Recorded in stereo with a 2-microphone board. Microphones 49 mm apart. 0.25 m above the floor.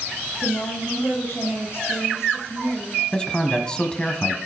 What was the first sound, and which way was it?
A woman speaking, 60° left (ahead or behind).